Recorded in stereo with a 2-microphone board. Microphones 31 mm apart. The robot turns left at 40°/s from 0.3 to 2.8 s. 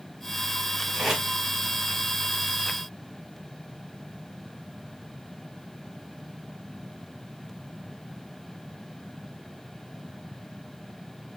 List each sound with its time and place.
0.9 s tape being pulled: 15° right (ahead or behind), 1.5 m; by 1.2 s 5° right (ahead or behind), 1.5 m